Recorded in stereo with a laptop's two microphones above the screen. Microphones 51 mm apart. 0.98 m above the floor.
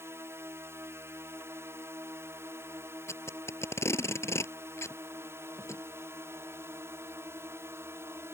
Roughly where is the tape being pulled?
Left.